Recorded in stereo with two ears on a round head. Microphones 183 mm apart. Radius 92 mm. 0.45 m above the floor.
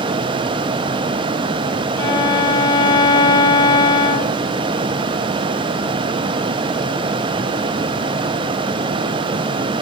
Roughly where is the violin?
Centre.